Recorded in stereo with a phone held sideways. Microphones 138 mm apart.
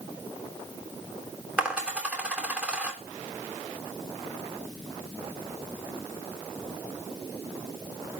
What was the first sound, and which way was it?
A dropped coin, 10° right (ahead or behind).